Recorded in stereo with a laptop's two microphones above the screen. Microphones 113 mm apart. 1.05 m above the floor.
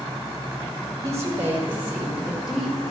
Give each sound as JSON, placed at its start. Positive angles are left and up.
{"t": 1.0, "sound": "a woman speaking", "side_deg": -30, "distance_m": 1.8}